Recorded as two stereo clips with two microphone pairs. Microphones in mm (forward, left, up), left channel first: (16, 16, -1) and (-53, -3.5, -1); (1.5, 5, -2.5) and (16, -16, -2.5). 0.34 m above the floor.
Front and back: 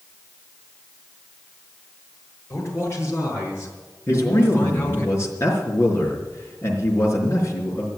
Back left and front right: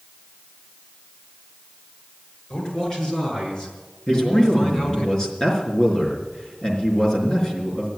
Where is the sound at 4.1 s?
65° left, 4 m.